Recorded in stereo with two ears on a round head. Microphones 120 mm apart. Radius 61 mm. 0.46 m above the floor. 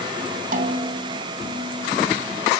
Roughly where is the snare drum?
Right.